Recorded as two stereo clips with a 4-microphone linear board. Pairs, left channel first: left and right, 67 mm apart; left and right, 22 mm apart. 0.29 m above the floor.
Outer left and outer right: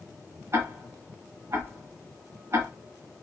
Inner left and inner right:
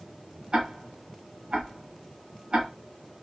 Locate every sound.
0.5 s ticking: 40° right (ahead or behind), 0.9 m